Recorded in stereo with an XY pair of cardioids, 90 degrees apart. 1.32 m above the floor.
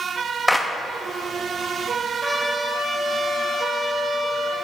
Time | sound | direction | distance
0.5 | a clap | straight ahead | 1.3 m
2.2 | a trumpet | 5° left | 3 m